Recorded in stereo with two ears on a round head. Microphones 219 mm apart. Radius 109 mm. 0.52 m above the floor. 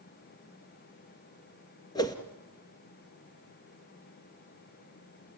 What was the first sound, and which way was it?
A whoosh, 15° left (ahead or behind).